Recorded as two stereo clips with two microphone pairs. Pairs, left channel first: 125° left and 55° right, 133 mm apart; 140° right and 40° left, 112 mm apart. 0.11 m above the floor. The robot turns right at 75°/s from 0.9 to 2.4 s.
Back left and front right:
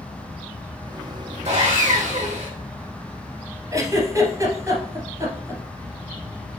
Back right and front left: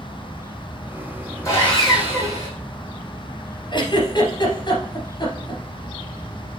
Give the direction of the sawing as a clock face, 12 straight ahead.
3 o'clock.